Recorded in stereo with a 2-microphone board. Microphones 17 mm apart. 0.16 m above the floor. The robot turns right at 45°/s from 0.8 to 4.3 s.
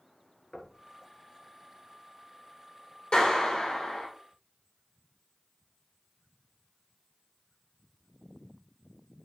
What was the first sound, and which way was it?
Knocking, 25° left (ahead or behind).